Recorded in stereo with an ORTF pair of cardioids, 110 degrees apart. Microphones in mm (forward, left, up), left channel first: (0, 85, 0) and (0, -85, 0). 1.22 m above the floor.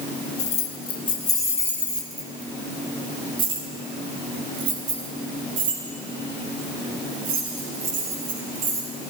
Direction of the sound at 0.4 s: 45° left.